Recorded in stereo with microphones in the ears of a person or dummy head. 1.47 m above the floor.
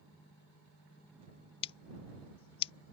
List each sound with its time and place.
1.6 s scissors: 30° left (ahead or behind)